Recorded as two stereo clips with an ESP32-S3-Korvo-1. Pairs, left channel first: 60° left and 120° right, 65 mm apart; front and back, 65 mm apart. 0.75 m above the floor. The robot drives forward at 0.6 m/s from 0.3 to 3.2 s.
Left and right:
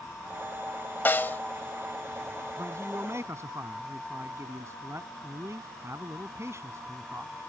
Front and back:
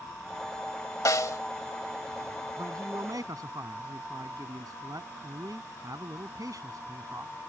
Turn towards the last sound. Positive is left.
turn(degrees=-160)